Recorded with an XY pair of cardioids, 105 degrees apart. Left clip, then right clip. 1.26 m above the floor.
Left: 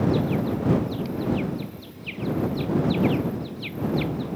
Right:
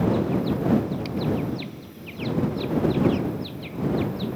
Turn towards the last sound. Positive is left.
No sound to turn to.